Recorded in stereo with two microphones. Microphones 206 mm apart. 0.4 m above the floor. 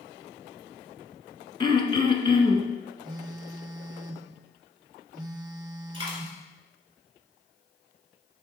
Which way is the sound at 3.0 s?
20° right (ahead or behind).